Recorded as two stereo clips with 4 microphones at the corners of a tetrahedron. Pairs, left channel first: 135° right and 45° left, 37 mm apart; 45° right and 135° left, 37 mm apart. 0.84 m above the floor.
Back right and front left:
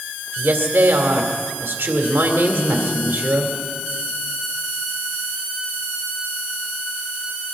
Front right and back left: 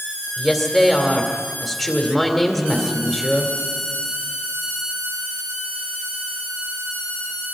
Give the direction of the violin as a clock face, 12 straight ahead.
I don't hear a violin.